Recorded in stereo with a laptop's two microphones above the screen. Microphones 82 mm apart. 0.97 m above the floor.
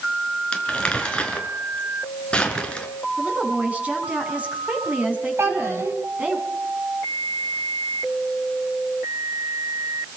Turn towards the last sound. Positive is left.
turn(degrees=-30)  # may be behind; listen again after turning